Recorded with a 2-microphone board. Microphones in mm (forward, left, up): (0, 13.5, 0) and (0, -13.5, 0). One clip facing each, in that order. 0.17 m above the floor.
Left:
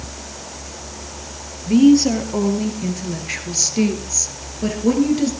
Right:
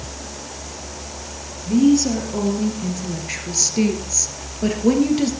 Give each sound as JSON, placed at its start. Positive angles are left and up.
{"t": 1.7, "sound": "a woman speaking", "side_deg": 35, "distance_m": 4.0}